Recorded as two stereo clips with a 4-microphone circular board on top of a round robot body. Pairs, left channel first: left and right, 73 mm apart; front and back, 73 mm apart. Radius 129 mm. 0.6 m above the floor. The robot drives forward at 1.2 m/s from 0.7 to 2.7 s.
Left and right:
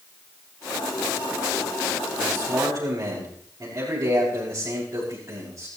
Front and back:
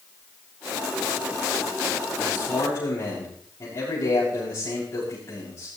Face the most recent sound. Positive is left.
turn(degrees=-45)